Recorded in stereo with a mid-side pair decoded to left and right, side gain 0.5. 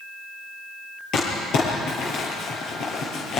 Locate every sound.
1.1 s crumpling: 65° left, 9.5 m